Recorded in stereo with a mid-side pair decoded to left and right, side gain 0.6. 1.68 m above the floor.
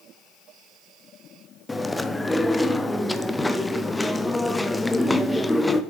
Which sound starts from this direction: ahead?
Chewing, at 1.7 s.